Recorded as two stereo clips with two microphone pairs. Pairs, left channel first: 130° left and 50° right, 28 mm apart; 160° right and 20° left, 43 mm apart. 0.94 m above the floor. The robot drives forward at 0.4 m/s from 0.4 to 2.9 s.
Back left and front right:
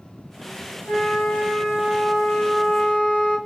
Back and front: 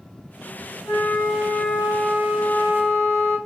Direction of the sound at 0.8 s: Straight behind.